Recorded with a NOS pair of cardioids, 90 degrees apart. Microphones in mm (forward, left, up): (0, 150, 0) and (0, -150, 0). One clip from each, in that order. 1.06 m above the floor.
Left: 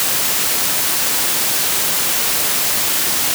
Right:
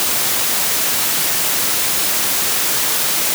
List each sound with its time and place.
Only background noise.